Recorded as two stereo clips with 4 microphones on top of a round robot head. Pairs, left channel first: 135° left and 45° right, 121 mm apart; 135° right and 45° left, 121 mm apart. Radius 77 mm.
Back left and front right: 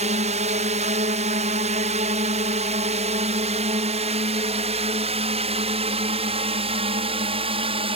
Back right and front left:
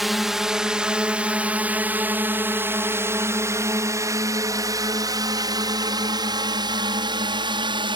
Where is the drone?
45° right; by 8.0 s 5° right.